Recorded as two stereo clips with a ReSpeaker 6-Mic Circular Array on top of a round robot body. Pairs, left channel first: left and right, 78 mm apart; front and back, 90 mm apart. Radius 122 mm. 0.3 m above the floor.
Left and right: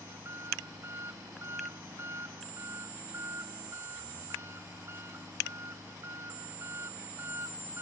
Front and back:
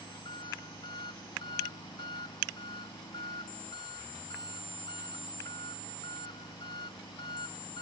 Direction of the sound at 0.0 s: 35° right.